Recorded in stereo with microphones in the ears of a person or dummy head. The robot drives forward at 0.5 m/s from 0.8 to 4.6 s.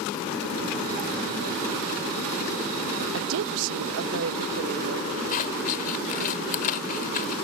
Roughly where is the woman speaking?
Right.